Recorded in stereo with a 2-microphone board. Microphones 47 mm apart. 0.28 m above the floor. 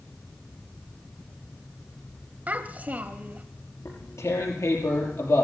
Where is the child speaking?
35° right (ahead or behind), 0.9 m.